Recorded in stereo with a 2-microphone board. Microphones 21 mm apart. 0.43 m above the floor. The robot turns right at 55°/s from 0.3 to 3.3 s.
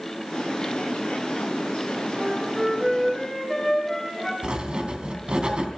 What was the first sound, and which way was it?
A flute, 45° right.